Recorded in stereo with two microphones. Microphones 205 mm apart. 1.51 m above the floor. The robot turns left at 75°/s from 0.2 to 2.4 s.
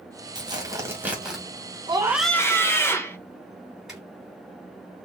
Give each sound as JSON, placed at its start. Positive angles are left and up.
{"t": 0.3, "sound": "tearing paper", "side_deg": -20, "distance_m": 1.4}
{"t": 1.9, "sound": "a scream", "azimuth_deg": -155, "distance_m": 1.1}
{"t": 3.9, "sound": "a zipper", "side_deg": -5, "distance_m": 2.0}